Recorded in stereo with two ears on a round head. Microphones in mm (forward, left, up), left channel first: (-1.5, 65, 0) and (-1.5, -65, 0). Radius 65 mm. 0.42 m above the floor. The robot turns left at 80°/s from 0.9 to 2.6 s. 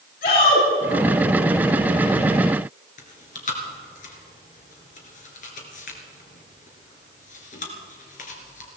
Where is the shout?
65° left (ahead or behind), 6 m.